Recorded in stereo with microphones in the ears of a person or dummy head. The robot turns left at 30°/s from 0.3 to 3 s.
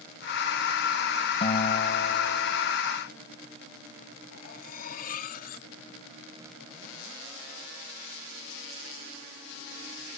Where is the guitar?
150° left; by 2.8 s 110° left.